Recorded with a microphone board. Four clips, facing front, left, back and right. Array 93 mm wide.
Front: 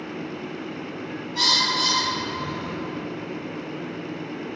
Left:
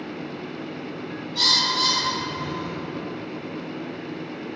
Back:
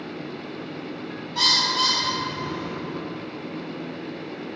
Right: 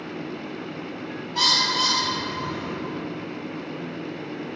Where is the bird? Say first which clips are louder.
Right 2 dB, even; 100° right, 2.0 m.